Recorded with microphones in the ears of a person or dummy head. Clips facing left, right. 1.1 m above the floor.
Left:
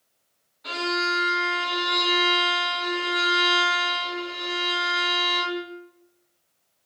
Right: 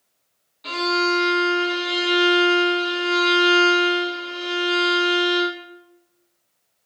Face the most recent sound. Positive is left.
turn(degrees=-50)  # may be behind; listen again after turning